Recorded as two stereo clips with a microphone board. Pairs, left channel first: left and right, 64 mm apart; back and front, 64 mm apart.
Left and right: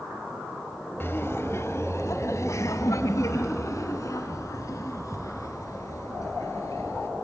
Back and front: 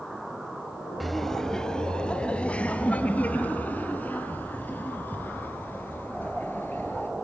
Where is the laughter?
90° left, 1.3 m; by 7.1 s 120° left, 5 m.